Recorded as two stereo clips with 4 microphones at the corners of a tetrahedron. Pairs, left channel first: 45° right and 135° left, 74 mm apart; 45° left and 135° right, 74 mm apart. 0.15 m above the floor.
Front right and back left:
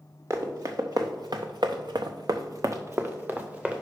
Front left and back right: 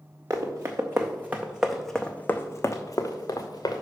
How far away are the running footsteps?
About 1.5 m.